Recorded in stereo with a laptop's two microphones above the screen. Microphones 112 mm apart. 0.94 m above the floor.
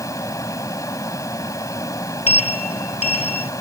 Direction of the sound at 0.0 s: 30° left (ahead or behind).